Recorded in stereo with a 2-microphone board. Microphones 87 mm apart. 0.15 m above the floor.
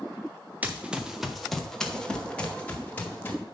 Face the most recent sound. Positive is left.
turn(degrees=20)  # may be behind; listen again after turning